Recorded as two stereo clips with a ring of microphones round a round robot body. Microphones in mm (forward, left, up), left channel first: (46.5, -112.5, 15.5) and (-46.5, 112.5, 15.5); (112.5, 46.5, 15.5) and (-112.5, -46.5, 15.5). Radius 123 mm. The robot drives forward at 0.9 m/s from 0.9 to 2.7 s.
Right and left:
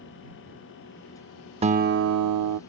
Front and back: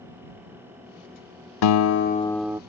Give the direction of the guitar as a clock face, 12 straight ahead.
11 o'clock.